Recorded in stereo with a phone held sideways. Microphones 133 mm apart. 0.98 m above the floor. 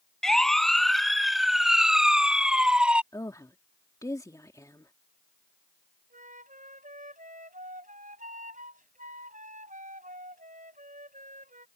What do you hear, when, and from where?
0.2 s a siren: 5° left (ahead or behind); by 3.0 s 10° right (ahead or behind)
3.1 s a woman speaking: 25° left (ahead or behind)
6.1 s a flute: 80° right